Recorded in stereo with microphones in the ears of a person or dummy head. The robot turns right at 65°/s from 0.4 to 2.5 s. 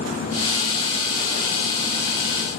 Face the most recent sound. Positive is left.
No sound to turn to.